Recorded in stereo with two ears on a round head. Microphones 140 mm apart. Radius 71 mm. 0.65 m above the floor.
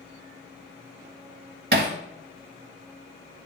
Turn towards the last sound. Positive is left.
turn(degrees=-65)  # may be behind; listen again after turning